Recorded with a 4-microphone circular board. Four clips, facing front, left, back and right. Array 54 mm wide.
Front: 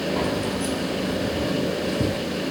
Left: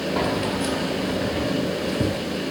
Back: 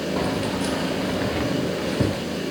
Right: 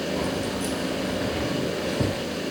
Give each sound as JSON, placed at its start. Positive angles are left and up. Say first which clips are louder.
{"t": 0.2, "sound": "keys jangling", "louder": "left 4 dB, even", "azimuth_deg": 90, "distance_m": 1.2}